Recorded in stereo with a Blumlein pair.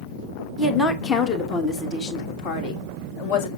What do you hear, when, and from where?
0.6 s a woman speaking: 15° left, 1.5 m; by 3.5 s 45° left, 2.5 m